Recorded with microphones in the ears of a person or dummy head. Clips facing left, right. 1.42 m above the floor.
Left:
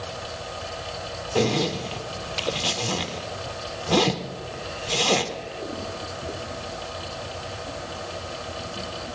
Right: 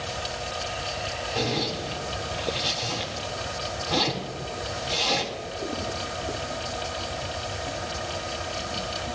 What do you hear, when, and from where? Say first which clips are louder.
0.0 s a fan: right 1 dB; 35° right (ahead or behind), 2.5 m
1.4 s a zipper: left 6 dB; 60° left (ahead or behind), 1.0 m